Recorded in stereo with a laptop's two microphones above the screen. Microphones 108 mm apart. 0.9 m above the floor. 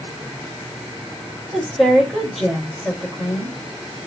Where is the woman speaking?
Centre (ahead or behind), 3.5 m.